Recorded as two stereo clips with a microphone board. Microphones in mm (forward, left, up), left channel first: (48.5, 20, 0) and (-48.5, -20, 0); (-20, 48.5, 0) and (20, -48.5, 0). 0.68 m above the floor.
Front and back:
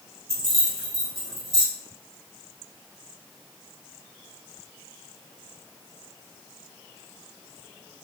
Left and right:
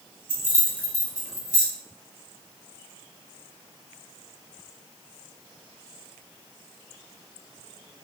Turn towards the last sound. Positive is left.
turn(degrees=-175)